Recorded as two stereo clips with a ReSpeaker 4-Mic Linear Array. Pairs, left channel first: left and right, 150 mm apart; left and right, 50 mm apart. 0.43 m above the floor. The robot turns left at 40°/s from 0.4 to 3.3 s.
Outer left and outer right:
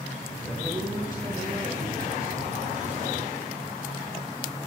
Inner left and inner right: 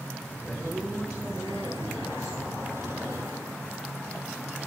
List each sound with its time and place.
0.4 s a man speaking: 140° left, 3.5 m; by 2.5 s 55° left, 3.5 m